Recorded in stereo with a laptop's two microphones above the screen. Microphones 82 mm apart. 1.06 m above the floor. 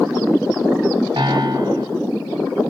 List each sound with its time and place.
1.2 s a piano: 80° right, 1.8 m